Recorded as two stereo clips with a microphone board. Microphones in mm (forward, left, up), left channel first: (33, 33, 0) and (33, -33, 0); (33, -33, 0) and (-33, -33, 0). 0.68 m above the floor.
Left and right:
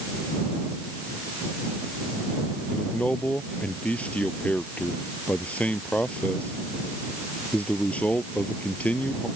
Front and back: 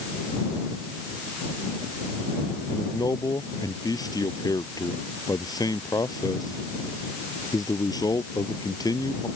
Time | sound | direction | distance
2.7 | a man speaking | 20° left | ?